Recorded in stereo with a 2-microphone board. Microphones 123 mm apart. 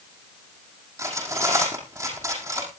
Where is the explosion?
I don't hear an explosion.